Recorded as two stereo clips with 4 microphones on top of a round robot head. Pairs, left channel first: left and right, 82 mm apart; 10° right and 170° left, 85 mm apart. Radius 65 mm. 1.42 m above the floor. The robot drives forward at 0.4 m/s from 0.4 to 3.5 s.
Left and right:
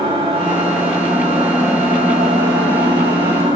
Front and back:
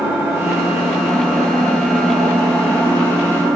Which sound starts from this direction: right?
An engine running, at 0.0 s.